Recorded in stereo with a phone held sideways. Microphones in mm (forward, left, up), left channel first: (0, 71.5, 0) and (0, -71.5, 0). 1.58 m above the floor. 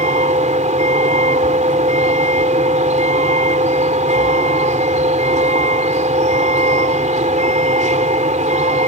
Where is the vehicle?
60° right (ahead or behind).